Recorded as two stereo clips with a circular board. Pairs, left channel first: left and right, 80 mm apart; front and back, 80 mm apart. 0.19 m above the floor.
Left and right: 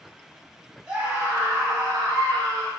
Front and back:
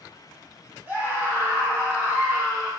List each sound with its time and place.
0.9 s a scream: 155° right, 1.0 m; by 2.7 s 120° right, 1.8 m